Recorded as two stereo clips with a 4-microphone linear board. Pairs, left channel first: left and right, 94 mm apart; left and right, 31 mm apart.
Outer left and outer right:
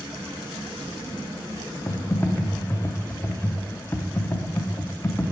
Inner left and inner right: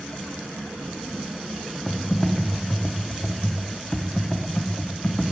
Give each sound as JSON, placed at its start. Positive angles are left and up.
{"t": 1.9, "sound": "typing on a keyboard", "side_deg": 25, "distance_m": 0.8}